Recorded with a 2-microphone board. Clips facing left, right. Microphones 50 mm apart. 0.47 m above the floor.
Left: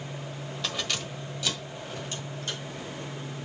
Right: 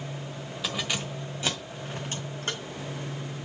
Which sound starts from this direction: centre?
Keys jangling, at 0.6 s.